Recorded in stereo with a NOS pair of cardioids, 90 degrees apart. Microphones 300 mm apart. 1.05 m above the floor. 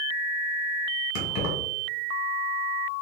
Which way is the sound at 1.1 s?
65° left.